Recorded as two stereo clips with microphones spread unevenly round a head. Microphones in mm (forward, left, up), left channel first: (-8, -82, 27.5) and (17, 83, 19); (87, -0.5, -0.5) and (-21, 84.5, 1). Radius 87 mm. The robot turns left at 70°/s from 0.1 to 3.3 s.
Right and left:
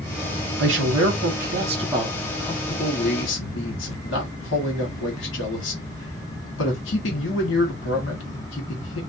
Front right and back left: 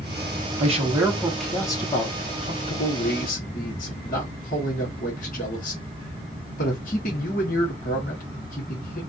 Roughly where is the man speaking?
Left.